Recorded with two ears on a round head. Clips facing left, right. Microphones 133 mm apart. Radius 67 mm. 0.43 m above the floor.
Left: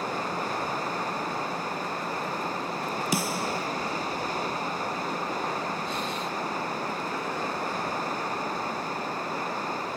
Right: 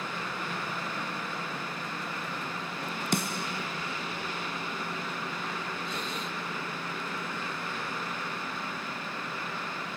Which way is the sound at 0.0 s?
35° left (ahead or behind).